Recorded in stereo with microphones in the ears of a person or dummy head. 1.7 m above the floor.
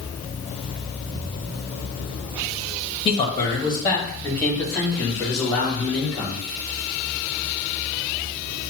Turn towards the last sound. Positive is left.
turn(degrees=15)  # may be behind; listen again after turning